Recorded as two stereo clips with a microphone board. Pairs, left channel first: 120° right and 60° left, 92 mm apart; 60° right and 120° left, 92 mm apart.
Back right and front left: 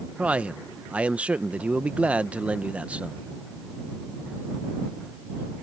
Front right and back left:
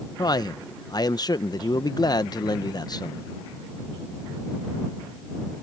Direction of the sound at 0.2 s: 15° right.